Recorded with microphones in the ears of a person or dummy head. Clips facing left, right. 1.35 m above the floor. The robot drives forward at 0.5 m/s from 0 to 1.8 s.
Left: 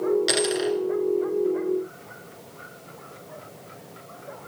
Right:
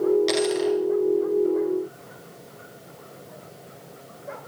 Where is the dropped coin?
10° left (ahead or behind), 1.9 m.